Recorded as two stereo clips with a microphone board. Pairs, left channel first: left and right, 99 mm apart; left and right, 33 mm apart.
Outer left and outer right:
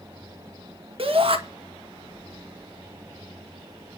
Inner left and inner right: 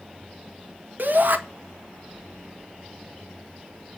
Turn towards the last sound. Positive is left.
turn(degrees=-65)  # may be behind; listen again after turning